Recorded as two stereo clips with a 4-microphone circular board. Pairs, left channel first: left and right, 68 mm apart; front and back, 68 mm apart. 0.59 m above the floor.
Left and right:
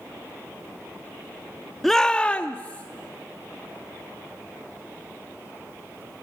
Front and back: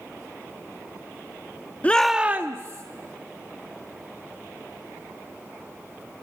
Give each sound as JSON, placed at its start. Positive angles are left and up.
{"t": 1.8, "sound": "a shout", "azimuth_deg": 5, "distance_m": 0.8}